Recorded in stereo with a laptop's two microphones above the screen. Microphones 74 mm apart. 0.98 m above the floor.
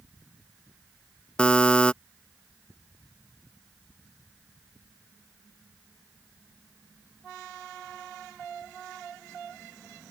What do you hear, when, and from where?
1.4 s a buzzer: 15° left (ahead or behind)